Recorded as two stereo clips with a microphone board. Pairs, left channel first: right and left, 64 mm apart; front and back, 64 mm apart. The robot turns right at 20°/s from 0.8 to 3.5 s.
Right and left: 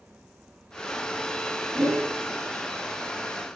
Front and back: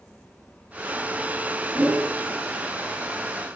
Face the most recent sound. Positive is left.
turn(degrees=150)